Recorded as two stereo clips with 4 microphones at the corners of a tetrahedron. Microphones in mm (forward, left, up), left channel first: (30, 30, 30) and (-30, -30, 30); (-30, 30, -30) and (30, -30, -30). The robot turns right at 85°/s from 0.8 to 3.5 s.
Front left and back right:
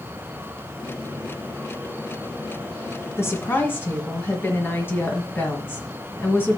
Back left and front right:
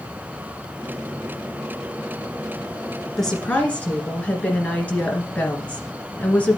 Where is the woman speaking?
50° left, 1.9 m; by 6.6 s 80° left, 1.9 m.